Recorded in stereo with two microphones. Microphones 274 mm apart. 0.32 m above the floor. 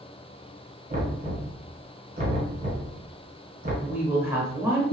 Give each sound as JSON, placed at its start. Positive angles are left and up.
{"t": 0.9, "sound": "knocking", "side_deg": -30, "distance_m": 1.3}
{"t": 3.8, "sound": "a woman speaking", "side_deg": -10, "distance_m": 0.8}